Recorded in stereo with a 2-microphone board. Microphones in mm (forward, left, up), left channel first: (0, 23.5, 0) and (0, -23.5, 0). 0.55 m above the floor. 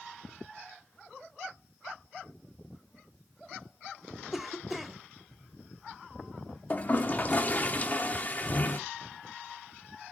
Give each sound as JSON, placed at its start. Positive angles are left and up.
{"t": 4.3, "sound": "a cough", "side_deg": -5, "distance_m": 0.9}
{"t": 6.7, "sound": "a toilet flushing", "side_deg": 35, "distance_m": 0.9}